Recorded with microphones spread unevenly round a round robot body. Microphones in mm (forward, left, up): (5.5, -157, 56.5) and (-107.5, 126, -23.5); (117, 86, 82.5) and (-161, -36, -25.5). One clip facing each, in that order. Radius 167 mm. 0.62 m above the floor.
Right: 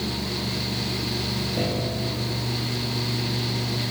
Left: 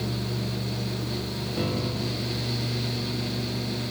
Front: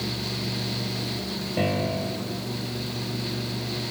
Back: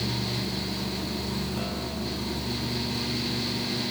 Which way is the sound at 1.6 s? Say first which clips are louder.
Even, front 6 dB; 30° left.